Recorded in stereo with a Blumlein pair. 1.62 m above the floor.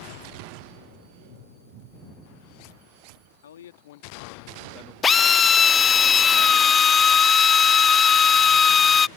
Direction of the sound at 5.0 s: 20° left.